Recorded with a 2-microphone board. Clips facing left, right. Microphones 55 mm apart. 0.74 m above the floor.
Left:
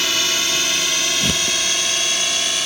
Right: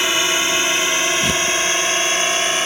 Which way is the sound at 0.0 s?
20° right (ahead or behind).